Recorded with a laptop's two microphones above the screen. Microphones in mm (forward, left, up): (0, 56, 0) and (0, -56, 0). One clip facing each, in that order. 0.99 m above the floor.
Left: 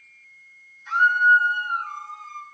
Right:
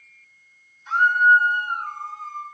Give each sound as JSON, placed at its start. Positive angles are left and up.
{"t": 0.9, "sound": "a scream", "side_deg": -35, "distance_m": 4.0}